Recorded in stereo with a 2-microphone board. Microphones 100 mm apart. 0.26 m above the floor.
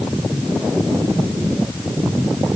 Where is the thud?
I don't hear a thud.